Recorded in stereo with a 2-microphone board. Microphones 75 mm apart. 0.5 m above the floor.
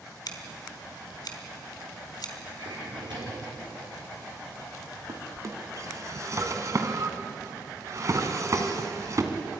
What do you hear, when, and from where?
0.3 s scissors: 65° left (ahead or behind), 2.5 m
2.6 s a drawer: 85° right, 6.5 m
5.1 s a drawer: 45° right (ahead or behind), 2 m